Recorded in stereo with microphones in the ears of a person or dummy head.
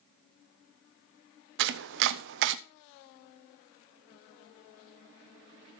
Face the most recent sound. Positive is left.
turn(degrees=-65)  # may be behind; listen again after turning